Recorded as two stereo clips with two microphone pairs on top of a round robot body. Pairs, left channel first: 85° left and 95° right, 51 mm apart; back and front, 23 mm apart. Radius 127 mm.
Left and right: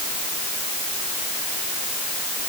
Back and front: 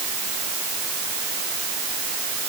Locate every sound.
Only background noise.